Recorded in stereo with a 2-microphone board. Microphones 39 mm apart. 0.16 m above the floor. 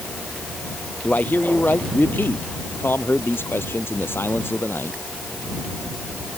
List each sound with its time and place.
1.0 s a man speaking: 45° left (ahead or behind); by 5.0 s 75° left (ahead or behind)